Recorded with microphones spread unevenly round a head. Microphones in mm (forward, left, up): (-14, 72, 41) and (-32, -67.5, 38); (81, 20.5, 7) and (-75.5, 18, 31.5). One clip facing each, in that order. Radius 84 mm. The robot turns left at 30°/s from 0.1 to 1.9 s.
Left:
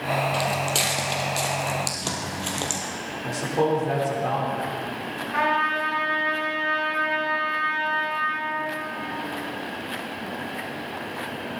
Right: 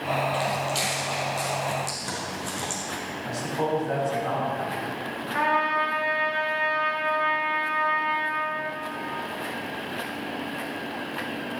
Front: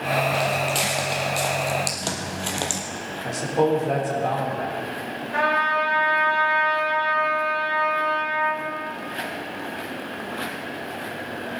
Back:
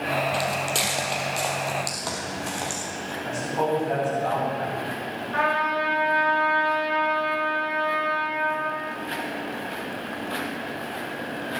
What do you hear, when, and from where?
0.3 s footsteps: 130° left, 3 m; by 2.8 s 50° left, 2.5 m
3.2 s a man speaking: 45° left, 4 m
5.3 s a trumpet: 60° left, 6 m